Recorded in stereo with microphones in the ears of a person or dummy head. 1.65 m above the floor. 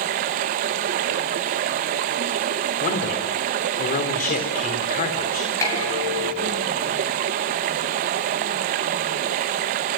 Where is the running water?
40° right (ahead or behind), 1.0 m.